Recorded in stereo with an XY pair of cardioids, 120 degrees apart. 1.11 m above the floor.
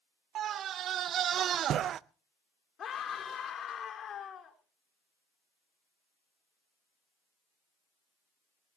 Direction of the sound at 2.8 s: 45° left.